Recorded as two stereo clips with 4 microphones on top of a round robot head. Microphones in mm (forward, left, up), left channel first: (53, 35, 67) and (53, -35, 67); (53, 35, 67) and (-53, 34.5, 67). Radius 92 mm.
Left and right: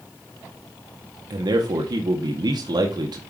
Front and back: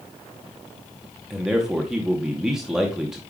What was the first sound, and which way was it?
A man speaking, 95° right.